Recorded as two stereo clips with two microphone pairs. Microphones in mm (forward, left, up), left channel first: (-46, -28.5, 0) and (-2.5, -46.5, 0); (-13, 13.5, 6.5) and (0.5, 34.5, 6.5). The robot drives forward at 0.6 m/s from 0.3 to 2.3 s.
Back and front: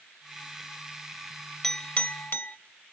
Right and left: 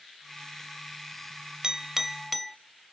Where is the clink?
85° left, 0.6 m; by 2.6 s 140° left, 0.7 m.